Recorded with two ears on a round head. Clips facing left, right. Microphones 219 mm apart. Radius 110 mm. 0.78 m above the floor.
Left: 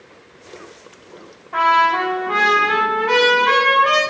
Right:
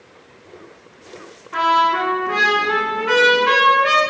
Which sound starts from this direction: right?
A trumpet, at 1.5 s.